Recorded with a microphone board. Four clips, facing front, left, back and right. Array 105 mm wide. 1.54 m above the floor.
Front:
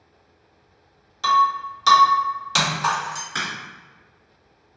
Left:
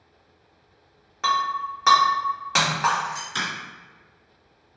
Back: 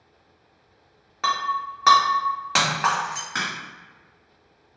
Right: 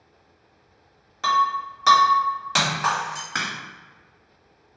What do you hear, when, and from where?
1.2 s breaking glass: 165° left, 1.3 m
3.4 s a crack: 105° right, 1.3 m